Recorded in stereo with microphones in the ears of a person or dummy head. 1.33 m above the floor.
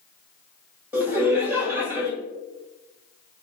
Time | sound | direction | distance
0.9 | laughter | 10° right (ahead or behind) | 1.8 m